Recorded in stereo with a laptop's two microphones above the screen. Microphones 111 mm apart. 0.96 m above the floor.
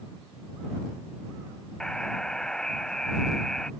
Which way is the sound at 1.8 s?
5° left (ahead or behind).